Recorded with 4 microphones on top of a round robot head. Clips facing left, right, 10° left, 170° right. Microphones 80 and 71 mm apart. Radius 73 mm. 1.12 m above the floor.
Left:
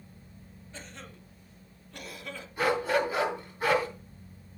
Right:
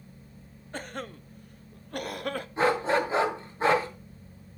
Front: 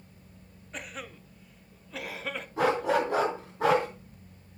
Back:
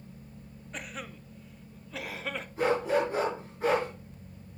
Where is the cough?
80° right, 1.0 m.